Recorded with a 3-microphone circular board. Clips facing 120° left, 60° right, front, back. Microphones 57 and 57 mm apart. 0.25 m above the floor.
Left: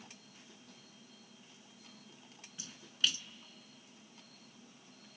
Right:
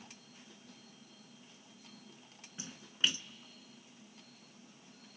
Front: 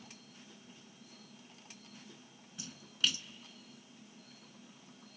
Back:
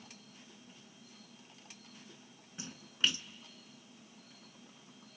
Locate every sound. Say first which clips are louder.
2.6 s a splash: right 1 dB, back 2 dB; 120° right, 0.5 m